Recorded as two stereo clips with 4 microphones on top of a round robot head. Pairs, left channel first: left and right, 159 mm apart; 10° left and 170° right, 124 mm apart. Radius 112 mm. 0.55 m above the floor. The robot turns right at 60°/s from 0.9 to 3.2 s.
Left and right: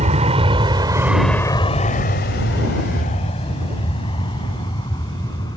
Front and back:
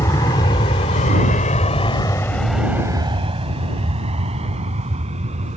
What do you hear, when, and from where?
0.0 s an aircraft: 55° right; by 5.6 s 160° left